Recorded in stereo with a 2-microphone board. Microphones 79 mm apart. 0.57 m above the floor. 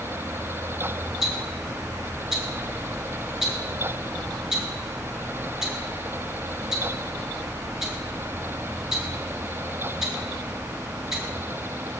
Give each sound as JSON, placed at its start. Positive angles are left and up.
{"t": 1.2, "sound": "ticking", "side_deg": -5, "distance_m": 7.5}